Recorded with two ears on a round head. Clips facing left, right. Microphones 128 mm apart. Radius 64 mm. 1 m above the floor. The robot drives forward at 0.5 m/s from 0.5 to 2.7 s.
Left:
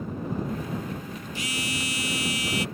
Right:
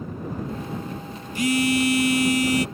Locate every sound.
1.4 s a phone buzzing: 45° right (ahead or behind); by 2.6 s 40° right (ahead or behind)